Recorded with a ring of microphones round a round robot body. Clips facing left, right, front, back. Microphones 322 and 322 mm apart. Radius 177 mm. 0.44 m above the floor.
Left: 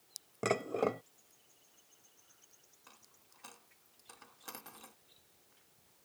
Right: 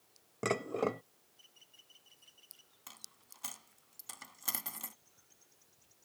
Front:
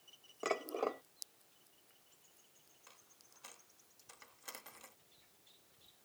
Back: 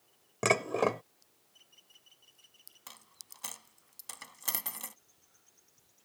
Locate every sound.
0.4 s dishes clattering: 175° right
2.9 s a dropped coin: 150° right